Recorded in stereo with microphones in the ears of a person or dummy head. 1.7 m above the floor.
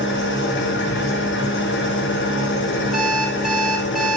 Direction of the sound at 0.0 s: 55° left (ahead or behind).